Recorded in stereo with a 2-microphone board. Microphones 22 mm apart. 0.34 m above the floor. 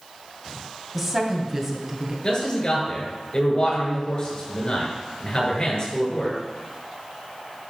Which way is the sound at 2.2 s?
35° left (ahead or behind).